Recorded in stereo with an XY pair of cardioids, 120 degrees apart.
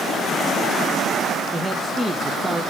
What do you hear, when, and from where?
1.5 s a man speaking: 10° right, 1.4 m